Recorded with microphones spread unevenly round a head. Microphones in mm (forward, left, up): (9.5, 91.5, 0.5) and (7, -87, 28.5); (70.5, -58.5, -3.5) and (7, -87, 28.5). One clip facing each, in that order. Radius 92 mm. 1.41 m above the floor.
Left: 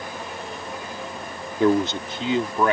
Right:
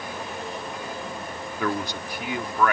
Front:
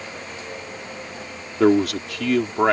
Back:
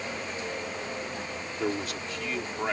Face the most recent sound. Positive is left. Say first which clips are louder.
# left 9 dB, front 15 dB
turn(degrees=20)